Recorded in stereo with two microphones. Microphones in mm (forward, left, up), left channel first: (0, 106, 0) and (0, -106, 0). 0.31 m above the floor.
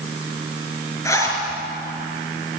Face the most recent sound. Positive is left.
turn(degrees=15)  # may be behind; listen again after turning